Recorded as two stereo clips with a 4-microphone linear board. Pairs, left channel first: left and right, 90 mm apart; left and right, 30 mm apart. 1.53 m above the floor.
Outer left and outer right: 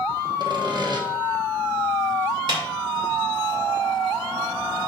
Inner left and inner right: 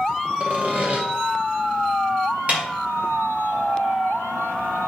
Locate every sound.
0.4 s sawing: 50° right (ahead or behind), 1.2 m
2.5 s a snare drum: 60° right (ahead or behind), 2.5 m